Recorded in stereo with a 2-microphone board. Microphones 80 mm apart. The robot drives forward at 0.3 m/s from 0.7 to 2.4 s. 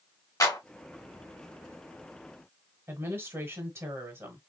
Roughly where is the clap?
Left.